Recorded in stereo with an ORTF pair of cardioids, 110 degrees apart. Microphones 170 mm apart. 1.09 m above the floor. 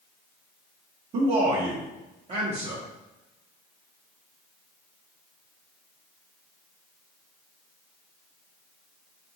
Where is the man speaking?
45° right, 1.0 m.